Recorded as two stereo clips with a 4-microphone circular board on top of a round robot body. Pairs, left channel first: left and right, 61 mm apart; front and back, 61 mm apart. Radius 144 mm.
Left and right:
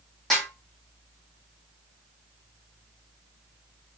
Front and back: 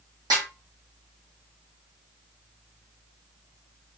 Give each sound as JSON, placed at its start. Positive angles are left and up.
{"t": 0.3, "sound": "a snare drum", "azimuth_deg": 175, "distance_m": 1.1}